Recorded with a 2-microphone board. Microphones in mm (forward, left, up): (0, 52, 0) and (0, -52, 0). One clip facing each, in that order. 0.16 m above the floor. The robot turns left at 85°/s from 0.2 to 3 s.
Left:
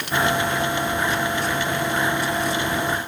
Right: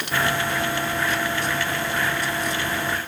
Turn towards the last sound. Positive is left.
No sound to turn to.